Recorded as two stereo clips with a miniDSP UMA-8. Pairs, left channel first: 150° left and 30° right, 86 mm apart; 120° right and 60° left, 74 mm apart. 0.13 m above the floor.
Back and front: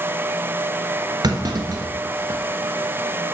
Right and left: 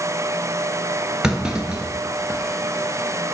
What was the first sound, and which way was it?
A clunk, 20° right.